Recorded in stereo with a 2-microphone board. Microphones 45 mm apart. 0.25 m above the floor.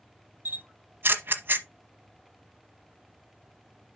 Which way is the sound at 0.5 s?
50° right (ahead or behind).